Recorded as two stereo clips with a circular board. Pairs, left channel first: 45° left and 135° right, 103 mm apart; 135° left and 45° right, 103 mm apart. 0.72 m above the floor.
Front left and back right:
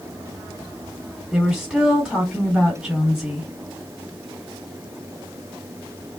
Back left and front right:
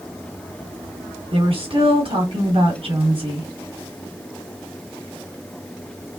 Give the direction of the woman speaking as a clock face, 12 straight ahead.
2 o'clock.